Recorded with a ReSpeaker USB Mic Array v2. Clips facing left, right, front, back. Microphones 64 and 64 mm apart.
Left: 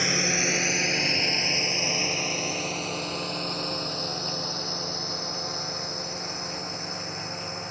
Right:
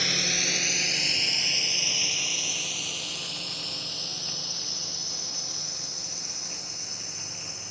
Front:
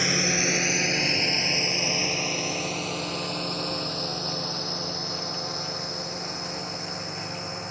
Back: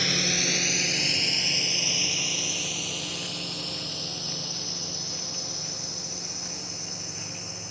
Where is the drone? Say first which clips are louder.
Left 4 dB, front 3 dB; 45° left.